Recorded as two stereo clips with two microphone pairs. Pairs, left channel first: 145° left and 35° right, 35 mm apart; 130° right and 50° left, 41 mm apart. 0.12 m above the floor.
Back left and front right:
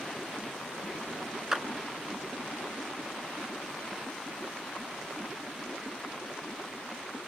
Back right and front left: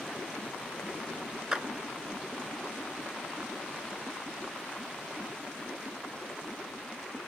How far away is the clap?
About 0.9 m.